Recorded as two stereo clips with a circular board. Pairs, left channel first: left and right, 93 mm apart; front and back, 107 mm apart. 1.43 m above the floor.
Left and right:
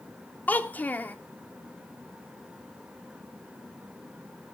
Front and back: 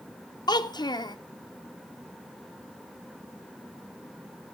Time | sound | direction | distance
0.5 | a child speaking | 25° left | 0.6 m